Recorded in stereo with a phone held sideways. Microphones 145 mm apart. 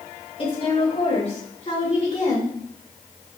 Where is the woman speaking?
40° left (ahead or behind), 3.5 m; by 2.5 s 50° left (ahead or behind), 2.5 m.